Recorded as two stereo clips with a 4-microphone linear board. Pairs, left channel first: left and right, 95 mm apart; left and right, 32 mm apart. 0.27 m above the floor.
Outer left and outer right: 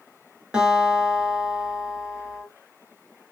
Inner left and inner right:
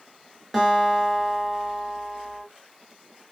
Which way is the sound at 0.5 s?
10° right (ahead or behind).